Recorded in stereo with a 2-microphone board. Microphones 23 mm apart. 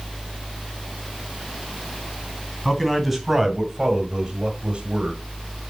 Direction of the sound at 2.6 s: 5° left (ahead or behind).